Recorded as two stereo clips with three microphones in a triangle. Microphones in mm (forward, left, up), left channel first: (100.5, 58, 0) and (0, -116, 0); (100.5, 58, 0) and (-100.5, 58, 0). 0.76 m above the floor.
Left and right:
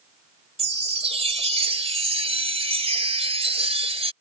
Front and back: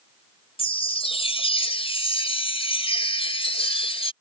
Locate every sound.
0.6 s a chime: 60° right